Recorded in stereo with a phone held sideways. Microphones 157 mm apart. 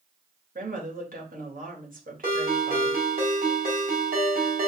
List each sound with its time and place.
0.6 s a woman speaking: 60° right (ahead or behind), 1.6 m
2.2 s a ringtone: 65° right (ahead or behind), 3 m